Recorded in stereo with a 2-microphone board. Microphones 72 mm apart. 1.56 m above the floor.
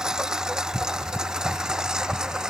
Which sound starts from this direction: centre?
A lawn mower, at 0.0 s.